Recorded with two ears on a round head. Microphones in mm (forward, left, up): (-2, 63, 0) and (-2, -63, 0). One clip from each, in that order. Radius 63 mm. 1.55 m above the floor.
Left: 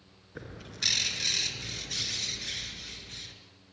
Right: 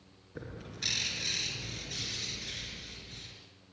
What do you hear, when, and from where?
0.3 s a bird: 35° left (ahead or behind), 4.5 m